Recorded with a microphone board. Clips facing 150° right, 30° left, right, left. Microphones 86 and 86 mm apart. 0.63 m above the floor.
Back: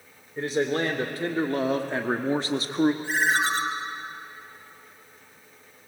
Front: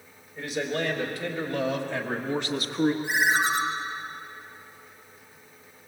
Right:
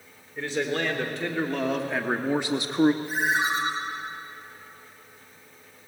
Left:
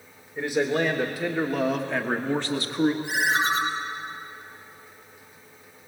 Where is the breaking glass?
No breaking glass in this recording.